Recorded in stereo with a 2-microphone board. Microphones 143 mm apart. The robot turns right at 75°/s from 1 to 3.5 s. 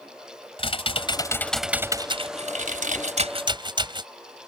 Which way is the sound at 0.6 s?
135° left.